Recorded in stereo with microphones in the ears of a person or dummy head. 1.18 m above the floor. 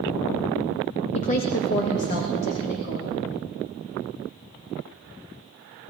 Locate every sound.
1.1 s a woman speaking: 35° left (ahead or behind), 0.6 m; by 3.1 s 65° left (ahead or behind), 3 m